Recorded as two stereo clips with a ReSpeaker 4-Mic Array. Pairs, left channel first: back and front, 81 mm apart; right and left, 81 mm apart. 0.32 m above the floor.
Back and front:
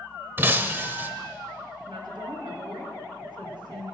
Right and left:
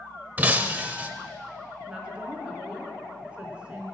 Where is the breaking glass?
40° left, 0.7 m.